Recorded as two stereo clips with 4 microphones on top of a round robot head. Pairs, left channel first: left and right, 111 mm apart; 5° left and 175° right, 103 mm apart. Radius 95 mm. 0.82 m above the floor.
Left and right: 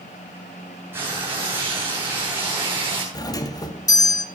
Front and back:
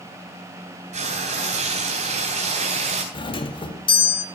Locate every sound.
0.9 s frying: 165° right, 3.5 m
3.1 s a doorbell: 35° left, 1.8 m